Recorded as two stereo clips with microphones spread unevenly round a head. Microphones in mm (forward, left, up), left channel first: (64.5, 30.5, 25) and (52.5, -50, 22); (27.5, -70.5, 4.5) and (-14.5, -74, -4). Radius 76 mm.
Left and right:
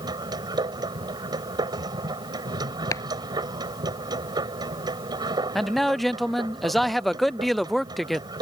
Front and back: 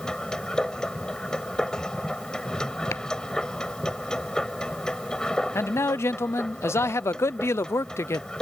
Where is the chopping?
35° left.